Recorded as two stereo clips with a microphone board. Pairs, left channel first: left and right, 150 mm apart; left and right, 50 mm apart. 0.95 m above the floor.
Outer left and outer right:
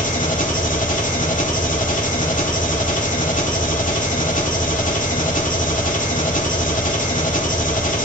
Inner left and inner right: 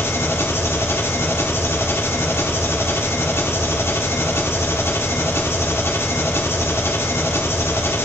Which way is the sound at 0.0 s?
60° left (ahead or behind).